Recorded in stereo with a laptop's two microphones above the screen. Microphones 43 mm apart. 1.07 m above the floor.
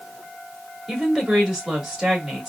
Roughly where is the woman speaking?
Centre.